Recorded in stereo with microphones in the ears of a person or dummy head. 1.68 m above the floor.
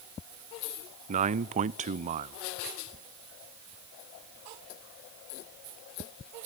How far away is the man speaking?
About 0.7 m.